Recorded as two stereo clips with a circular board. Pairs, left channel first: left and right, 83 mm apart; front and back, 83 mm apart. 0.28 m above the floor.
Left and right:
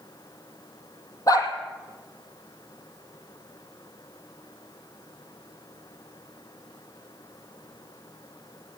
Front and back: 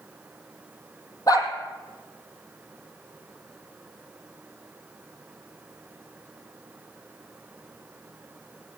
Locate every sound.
1.3 s a dog barking: 45° left, 4 m